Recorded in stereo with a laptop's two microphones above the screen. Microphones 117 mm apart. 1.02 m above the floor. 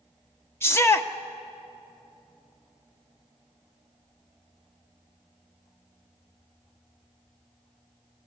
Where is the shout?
20° left (ahead or behind), 1.1 m.